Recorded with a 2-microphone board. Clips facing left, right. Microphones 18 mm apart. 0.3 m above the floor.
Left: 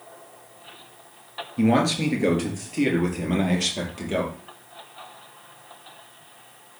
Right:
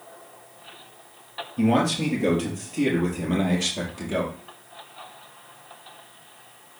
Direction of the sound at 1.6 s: 40° left (ahead or behind).